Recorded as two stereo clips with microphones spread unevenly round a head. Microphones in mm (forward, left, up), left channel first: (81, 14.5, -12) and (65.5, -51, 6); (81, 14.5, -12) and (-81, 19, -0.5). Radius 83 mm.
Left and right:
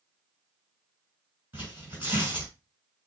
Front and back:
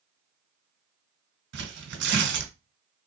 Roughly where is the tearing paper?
Behind.